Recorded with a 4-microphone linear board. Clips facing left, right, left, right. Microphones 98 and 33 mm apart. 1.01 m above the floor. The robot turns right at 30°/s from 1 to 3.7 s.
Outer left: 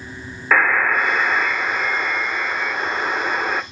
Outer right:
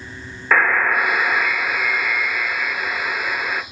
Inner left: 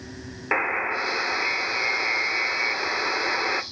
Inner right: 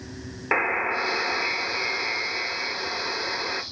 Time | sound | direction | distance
0.5 | a buzzer | straight ahead | 0.7 m